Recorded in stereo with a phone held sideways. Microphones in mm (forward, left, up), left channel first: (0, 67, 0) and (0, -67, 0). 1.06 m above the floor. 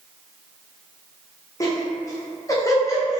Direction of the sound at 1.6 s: 25° left (ahead or behind).